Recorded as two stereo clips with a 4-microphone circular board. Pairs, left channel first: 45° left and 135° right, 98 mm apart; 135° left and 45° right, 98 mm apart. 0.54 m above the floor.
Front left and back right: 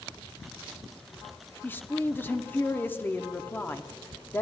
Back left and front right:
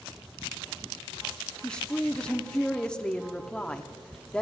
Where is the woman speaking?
70° left, 0.6 m.